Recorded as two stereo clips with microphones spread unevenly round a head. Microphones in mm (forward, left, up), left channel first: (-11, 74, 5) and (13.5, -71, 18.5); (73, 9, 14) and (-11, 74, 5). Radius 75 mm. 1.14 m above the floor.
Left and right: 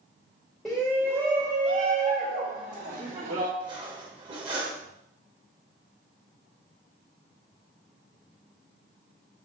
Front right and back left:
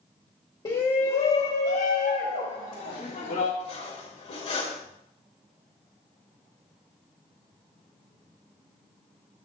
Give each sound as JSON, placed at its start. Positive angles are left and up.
{"t": 0.7, "sound": "a shout", "azimuth_deg": 15, "distance_m": 1.0}
{"t": 3.6, "sound": "cutlery clinking", "azimuth_deg": -20, "distance_m": 2.5}